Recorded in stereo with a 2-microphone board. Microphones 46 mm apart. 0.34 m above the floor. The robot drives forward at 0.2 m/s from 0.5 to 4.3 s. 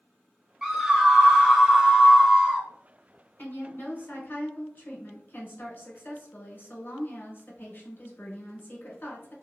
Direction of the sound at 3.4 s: 45° left (ahead or behind).